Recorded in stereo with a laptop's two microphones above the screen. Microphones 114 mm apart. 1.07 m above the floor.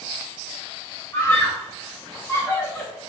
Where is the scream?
20° left (ahead or behind), 0.6 m.